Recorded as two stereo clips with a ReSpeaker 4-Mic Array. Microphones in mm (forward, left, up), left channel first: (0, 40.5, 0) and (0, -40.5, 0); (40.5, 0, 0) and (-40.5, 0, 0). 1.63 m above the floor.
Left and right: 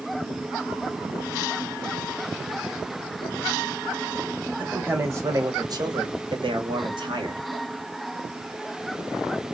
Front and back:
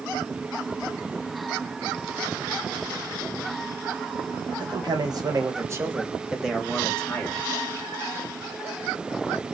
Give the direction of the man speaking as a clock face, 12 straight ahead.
5 o'clock.